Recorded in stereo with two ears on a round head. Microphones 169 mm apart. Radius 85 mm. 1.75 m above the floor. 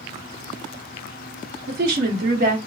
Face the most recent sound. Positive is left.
turn(degrees=-50)  # may be behind; listen again after turning